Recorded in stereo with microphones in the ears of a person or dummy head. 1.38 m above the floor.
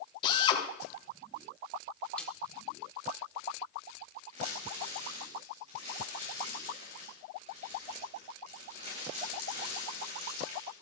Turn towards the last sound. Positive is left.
turn(degrees=-45)  # may be behind; listen again after turning